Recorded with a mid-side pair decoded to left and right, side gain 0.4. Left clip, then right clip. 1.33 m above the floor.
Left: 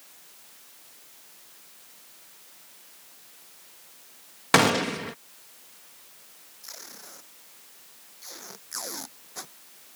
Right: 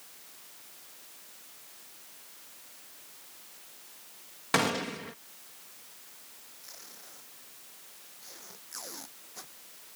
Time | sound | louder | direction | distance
4.5 | a gunshot | left 8 dB | 60° left | ?
6.6 | tape being pulled | left 7 dB | 55° left | ?